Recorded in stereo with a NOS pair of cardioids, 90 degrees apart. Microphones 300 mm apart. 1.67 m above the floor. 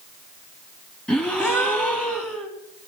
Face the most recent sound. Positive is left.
turn(degrees=5)